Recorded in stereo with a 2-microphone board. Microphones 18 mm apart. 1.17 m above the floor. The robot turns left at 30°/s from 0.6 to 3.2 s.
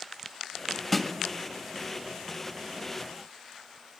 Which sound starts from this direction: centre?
A snare drum, at 0.9 s.